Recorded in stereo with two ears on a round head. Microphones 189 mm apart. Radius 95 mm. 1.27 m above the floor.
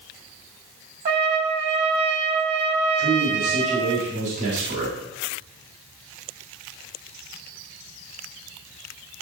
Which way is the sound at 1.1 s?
55° right (ahead or behind).